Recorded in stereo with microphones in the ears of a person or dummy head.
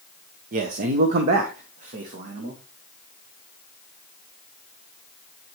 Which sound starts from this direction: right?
A man speaking, at 0.5 s.